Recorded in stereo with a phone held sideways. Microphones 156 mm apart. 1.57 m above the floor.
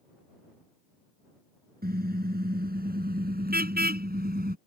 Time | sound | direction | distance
1.8 | a car horn | 85° right | ?